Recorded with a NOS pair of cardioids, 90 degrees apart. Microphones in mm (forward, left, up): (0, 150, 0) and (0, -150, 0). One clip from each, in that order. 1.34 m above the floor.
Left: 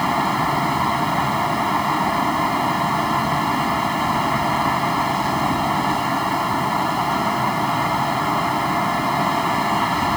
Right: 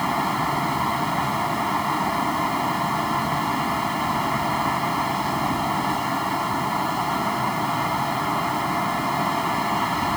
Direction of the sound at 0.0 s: 20° left.